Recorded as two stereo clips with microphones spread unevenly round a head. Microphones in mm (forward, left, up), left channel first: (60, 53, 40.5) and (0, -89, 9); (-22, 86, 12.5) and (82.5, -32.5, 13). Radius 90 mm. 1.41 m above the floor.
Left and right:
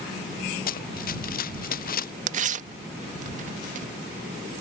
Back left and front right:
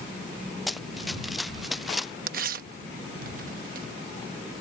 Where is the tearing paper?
75° right.